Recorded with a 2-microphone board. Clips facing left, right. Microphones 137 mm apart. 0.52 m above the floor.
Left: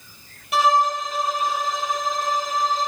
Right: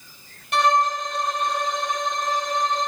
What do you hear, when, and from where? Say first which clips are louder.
0.5 s a violin: left 1 dB; 5° left (ahead or behind), 1.6 m